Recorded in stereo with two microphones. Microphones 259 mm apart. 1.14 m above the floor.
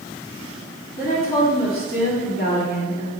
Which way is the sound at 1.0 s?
35° left (ahead or behind).